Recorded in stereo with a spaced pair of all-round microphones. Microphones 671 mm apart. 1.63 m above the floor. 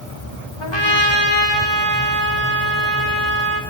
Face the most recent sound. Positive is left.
turn(degrees=40)  # may be behind; listen again after turning